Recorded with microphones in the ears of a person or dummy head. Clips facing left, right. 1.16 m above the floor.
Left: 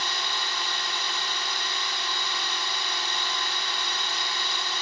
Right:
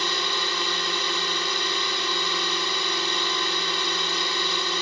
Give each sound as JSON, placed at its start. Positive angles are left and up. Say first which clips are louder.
{"t": 0.0, "sound": "a drone", "louder": "right 5 dB", "side_deg": -65}